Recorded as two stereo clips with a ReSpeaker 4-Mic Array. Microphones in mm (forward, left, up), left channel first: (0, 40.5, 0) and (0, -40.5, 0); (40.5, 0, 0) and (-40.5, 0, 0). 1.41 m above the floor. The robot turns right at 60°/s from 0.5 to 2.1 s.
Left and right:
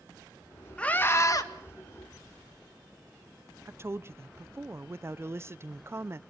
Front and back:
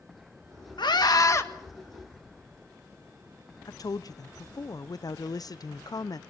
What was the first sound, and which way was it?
A scream, 15° left.